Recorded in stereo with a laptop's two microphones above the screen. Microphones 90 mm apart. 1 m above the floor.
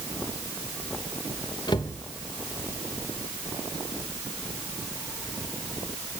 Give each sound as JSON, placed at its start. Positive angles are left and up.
{"t": 1.7, "sound": "a cupboard door", "side_deg": 55, "distance_m": 1.1}